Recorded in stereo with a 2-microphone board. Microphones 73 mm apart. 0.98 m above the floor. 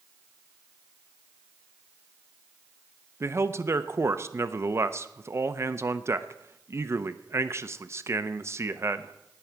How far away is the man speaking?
About 0.7 m.